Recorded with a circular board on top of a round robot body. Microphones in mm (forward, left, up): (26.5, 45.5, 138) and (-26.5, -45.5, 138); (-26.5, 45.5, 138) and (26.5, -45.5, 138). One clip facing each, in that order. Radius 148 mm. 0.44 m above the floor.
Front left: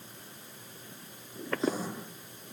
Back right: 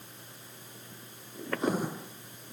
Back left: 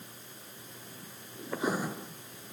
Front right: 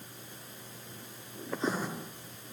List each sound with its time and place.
1.5 s writing: 160° right, 7 m